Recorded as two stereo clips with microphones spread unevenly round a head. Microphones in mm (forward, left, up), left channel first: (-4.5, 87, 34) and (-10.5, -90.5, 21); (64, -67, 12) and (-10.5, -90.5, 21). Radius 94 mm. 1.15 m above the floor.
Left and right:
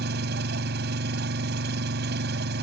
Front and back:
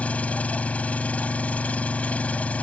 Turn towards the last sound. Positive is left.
turn(degrees=-55)